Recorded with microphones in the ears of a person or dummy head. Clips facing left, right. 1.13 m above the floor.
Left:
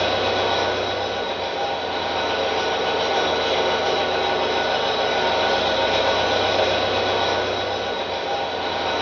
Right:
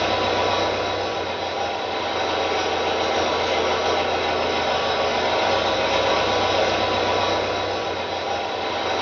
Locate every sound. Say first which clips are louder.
0.0 s an engine running: even; centre (ahead or behind), 3 m